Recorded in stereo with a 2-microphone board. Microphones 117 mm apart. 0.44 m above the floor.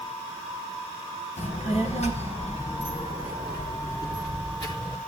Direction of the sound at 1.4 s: 80° left.